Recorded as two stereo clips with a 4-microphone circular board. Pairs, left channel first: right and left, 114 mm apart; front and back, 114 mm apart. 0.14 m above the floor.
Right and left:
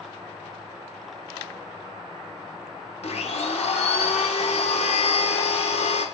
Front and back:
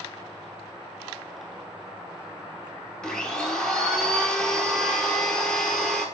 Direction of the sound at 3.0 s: 85° right.